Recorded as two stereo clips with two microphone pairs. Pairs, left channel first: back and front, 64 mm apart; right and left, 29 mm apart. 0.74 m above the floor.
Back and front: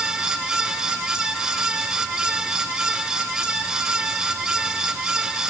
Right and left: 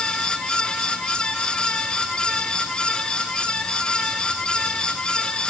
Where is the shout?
I don't hear a shout.